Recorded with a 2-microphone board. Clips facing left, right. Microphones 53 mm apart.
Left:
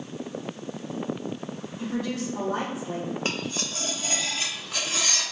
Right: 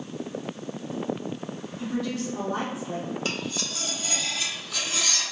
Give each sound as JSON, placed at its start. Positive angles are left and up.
{"t": 1.8, "sound": "a woman speaking", "side_deg": 40, "distance_m": 1.8}
{"t": 3.2, "sound": "cutlery clinking", "side_deg": 35, "distance_m": 0.8}